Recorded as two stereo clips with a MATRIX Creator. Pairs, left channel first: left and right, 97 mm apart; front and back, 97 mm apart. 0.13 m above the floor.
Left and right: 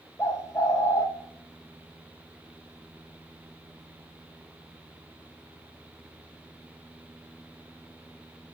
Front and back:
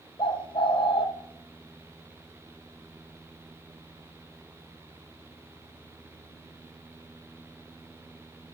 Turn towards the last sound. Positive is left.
turn(degrees=30)